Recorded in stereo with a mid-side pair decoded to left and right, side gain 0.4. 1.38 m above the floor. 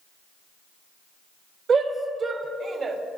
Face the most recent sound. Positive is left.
turn(degrees=-55)